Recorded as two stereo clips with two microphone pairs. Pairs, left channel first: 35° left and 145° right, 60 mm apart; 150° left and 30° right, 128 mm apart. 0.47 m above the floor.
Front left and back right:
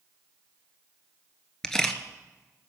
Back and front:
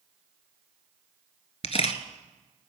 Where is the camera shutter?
115° left, 1.0 m.